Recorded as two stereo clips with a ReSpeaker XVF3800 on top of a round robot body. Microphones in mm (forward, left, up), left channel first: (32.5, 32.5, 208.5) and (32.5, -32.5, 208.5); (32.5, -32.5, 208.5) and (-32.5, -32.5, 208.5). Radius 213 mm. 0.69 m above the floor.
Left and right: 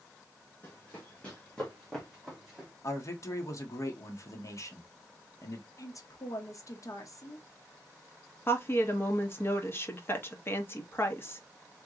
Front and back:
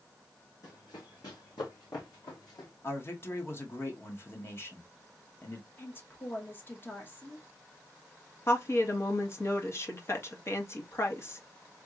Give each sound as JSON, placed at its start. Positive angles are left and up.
{"t": 0.6, "sound": "running footsteps", "azimuth_deg": 25, "distance_m": 1.8}
{"t": 2.8, "sound": "a man speaking", "azimuth_deg": 50, "distance_m": 1.6}
{"t": 5.8, "sound": "a woman speaking", "azimuth_deg": 55, "distance_m": 1.3}
{"t": 8.5, "sound": "a woman speaking", "azimuth_deg": 40, "distance_m": 1.7}